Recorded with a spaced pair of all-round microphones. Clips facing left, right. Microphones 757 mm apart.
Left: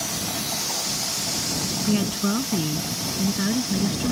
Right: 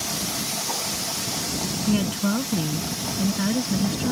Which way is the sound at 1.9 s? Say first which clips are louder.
Even; 5° right (ahead or behind).